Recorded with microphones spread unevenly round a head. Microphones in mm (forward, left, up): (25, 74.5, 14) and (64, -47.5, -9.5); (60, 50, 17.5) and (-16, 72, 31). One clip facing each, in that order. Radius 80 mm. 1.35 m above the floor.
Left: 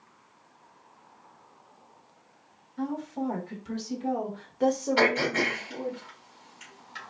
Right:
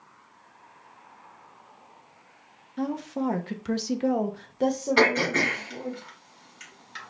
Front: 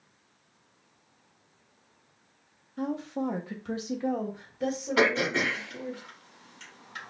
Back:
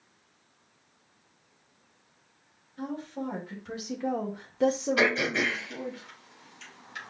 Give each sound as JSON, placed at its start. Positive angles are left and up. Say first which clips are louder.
{"t": 2.8, "sound": "a woman speaking", "louder": "right 3 dB, front 4 dB", "azimuth_deg": -55, "distance_m": 0.9}
{"t": 5.0, "sound": "throat clearing", "louder": "right 2 dB, front 1 dB", "azimuth_deg": -55, "distance_m": 2.5}